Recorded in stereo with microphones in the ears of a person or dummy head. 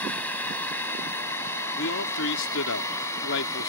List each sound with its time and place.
0.0 s a drone: 15° left (ahead or behind); by 3.7 s 20° left (ahead or behind)
1.8 s a man speaking: 75° left (ahead or behind)